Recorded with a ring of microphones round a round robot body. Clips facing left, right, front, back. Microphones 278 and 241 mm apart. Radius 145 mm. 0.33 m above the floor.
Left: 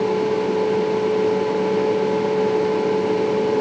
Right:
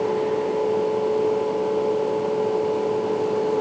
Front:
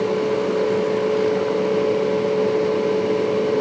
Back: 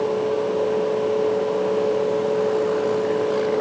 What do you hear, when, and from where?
Only background noise.